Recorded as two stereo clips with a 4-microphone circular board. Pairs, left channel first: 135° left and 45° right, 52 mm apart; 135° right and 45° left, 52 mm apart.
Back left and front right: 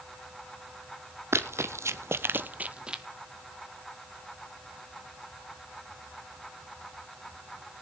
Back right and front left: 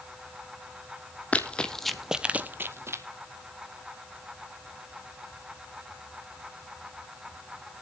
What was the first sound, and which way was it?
Running footsteps, 75° right.